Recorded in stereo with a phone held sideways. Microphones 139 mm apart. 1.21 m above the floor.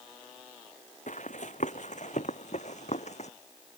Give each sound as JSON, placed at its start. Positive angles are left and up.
{"t": 1.1, "sound": "running footsteps", "side_deg": 60}